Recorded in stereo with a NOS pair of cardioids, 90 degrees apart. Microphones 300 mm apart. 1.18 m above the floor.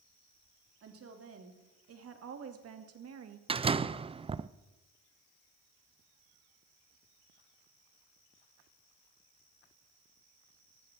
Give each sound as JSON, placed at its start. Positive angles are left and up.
{"t": 0.8, "sound": "a woman speaking", "azimuth_deg": -50, "distance_m": 3.5}
{"t": 3.5, "sound": "a door slam", "azimuth_deg": -20, "distance_m": 0.5}